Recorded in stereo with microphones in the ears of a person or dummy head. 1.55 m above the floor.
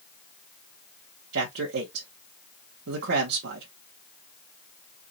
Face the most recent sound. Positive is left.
turn(degrees=-65)  # may be behind; listen again after turning